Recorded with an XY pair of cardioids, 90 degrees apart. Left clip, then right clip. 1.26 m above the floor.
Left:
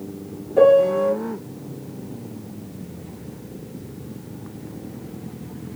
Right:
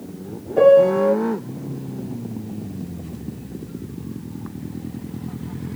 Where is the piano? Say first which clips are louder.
Right 2 dB; 5° right, 1.1 m.